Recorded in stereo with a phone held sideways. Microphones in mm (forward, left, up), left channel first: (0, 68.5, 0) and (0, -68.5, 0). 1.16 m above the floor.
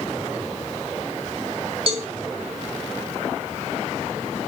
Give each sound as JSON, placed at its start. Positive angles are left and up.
{"t": 1.9, "sound": "a cowbell", "side_deg": -45, "distance_m": 2.0}